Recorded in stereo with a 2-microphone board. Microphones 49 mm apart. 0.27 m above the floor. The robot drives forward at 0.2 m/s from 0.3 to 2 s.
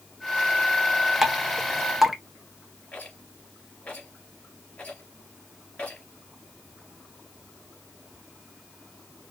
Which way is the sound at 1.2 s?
5° right (ahead or behind).